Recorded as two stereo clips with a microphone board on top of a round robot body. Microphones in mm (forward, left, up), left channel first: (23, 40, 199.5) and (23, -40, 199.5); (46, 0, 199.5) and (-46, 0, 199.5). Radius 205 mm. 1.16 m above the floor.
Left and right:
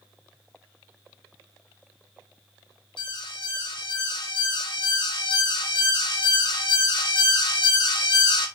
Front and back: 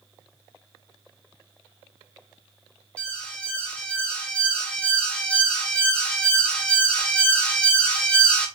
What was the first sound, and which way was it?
An alarm, 75° left.